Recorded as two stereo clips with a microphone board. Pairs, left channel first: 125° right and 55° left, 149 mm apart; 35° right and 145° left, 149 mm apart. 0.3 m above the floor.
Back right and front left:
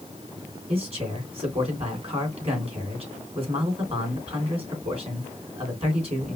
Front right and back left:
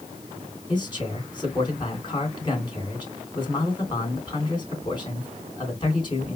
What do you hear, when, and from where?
0.7 s a man speaking: 15° left, 2.5 m